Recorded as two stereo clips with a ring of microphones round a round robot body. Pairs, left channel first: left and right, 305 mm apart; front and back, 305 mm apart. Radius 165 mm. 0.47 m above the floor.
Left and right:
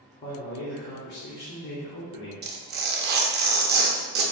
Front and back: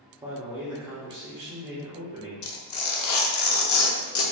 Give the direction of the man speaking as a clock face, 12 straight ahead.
8 o'clock.